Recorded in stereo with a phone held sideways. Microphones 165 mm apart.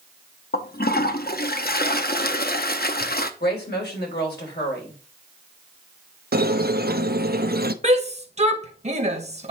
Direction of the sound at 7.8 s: 40° right (ahead or behind).